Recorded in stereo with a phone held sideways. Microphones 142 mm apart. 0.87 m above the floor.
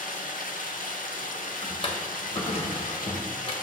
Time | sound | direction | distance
0.0 | running water | 70° left (ahead or behind) | 0.9 m
1.6 | a drawer | 40° left (ahead or behind) | 0.9 m